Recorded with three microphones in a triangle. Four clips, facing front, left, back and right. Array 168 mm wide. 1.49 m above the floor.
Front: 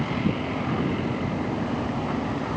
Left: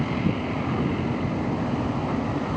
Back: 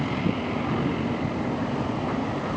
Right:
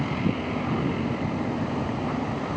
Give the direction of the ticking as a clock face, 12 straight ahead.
I don't hear ticking.